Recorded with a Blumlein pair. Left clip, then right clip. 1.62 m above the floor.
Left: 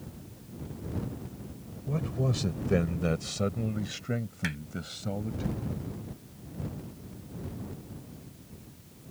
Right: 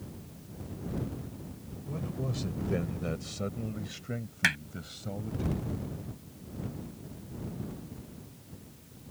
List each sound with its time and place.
1.9 s a man speaking: 20° left; by 5.4 s 15° left
4.4 s hammering: 25° right